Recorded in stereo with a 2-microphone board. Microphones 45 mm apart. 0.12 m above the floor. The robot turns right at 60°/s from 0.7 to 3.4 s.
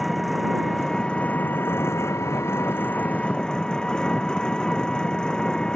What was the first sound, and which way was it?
An engine running, straight ahead.